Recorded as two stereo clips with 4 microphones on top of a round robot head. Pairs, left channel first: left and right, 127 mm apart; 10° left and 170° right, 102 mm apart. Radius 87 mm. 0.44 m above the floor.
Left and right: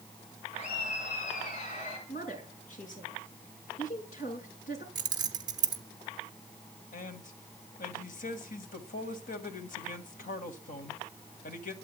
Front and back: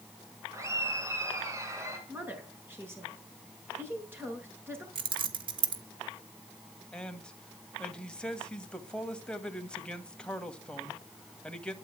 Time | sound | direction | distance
0.5 | laughter | 130° left | 5 m
2.1 | a woman speaking | 125° left | 6.5 m
5.0 | keys jangling | 145° right | 1.3 m
6.9 | a man speaking | 90° left | 2.5 m